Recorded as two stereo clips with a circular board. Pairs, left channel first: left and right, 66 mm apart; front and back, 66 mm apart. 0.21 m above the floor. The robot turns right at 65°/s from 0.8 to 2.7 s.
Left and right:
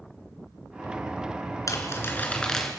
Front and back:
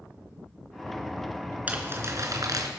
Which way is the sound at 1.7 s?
115° left.